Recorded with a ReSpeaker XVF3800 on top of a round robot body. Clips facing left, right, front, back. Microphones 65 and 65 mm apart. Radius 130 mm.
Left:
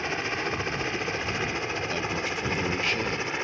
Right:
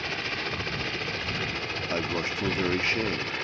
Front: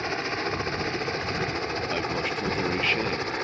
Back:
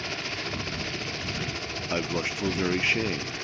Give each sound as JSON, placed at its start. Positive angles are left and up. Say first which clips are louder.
{"t": 0.0, "sound": "a helicopter", "louder": "left 3 dB, front 5 dB", "azimuth_deg": 25}
{"t": 1.9, "sound": "a man speaking", "louder": "even, back 3 dB", "azimuth_deg": -110}